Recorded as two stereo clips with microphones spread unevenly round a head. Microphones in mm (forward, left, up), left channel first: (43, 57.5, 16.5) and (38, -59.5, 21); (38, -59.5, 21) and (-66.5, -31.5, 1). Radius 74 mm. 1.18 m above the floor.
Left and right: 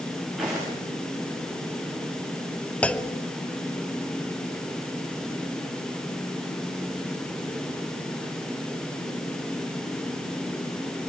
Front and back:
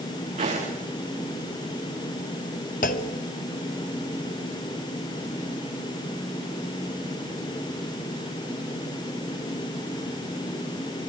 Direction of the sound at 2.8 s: 10° left.